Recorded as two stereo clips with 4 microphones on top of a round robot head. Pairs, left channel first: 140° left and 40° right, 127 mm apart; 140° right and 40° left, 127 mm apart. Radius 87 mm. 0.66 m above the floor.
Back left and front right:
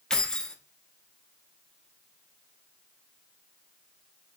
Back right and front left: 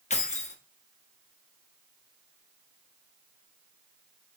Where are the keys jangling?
135° right, 1.1 m.